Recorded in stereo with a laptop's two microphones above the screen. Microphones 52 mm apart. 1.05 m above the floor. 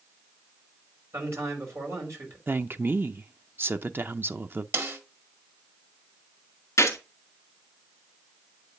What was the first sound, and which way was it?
A man speaking, 60° right (ahead or behind).